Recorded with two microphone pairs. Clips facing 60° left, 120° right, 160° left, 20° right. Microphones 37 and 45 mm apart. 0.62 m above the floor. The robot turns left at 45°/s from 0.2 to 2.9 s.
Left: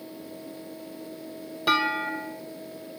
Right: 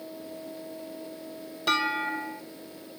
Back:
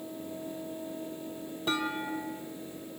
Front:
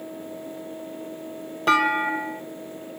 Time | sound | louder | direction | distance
1.7 | a clunk | left 2 dB, front 12 dB | 20° right | 0.7 m